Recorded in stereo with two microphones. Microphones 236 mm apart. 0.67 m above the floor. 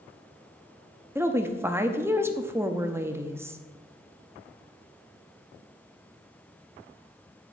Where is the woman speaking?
10° right (ahead or behind), 0.7 m.